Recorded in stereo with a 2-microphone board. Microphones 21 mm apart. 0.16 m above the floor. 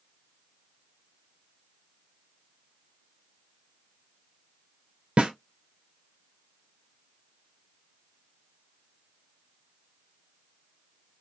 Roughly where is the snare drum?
Right.